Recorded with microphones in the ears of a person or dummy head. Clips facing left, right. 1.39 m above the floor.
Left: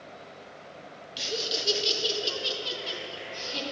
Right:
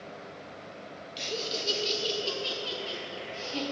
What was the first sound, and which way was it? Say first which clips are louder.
Laughter: left 1 dB; 10° left (ahead or behind).